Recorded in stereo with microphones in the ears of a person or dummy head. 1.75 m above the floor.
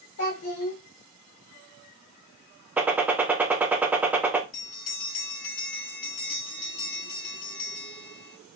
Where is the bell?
50° left (ahead or behind), 1.6 m.